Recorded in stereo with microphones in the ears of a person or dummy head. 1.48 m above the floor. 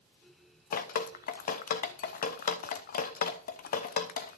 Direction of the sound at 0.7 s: 50° left (ahead or behind).